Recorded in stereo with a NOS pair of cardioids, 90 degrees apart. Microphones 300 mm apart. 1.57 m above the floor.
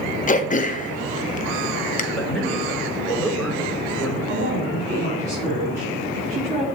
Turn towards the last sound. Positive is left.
turn(degrees=-30)